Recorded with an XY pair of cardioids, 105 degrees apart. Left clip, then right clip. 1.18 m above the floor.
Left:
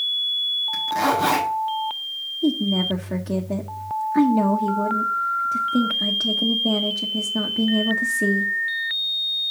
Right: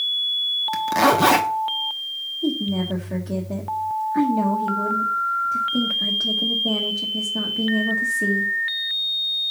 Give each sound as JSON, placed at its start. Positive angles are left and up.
{"t": 0.7, "sound": "a zipper", "azimuth_deg": -50, "distance_m": 1.3}
{"t": 2.4, "sound": "a woman speaking", "azimuth_deg": 25, "distance_m": 1.1}